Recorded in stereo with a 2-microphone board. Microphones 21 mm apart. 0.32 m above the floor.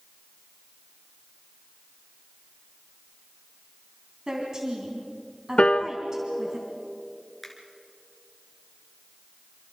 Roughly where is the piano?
Left.